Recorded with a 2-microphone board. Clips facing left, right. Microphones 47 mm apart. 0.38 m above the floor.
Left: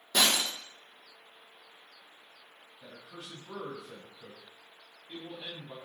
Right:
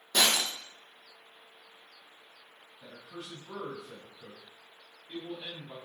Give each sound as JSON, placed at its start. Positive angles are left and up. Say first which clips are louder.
{"t": 0.1, "sound": "breaking glass", "louder": "even", "side_deg": 5, "distance_m": 6.0}
{"t": 2.8, "sound": "a man speaking", "louder": "right 2 dB", "side_deg": -5, "distance_m": 3.5}